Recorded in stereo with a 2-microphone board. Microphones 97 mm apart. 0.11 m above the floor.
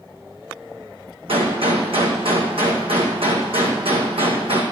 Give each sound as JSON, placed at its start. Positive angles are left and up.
{"t": 1.3, "sound": "a gunshot", "side_deg": -70, "distance_m": 1.9}